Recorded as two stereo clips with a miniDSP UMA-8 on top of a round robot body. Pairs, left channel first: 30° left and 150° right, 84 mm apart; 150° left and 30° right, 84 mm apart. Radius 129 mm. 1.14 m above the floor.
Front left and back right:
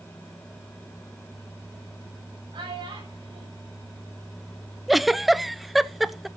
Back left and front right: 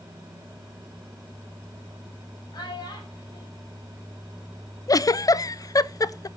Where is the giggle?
120° left, 0.5 m.